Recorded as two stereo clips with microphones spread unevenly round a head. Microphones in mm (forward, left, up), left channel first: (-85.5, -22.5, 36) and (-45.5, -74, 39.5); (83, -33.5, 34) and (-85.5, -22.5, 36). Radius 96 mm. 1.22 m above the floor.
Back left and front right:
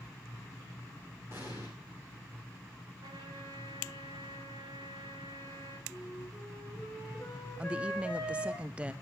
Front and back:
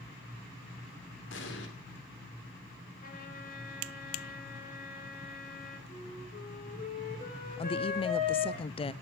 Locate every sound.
1.3 s an explosion: 25° left, 2 m
3.0 s a trumpet: 45° right, 3 m
5.9 s a flute: 40° left, 5.5 m
7.6 s a woman speaking: 10° left, 0.5 m